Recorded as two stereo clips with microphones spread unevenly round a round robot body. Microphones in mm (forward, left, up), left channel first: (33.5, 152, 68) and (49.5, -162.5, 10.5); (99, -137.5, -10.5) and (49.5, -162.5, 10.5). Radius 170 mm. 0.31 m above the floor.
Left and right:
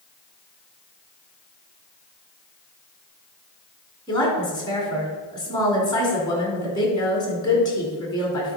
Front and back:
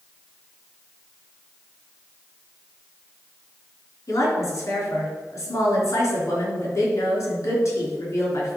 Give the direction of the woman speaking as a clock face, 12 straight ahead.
12 o'clock.